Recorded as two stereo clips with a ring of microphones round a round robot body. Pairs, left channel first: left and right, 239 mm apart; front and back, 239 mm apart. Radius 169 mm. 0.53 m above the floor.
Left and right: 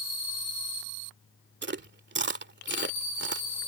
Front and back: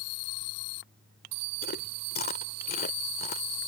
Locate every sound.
1.6 s chewing: 55° right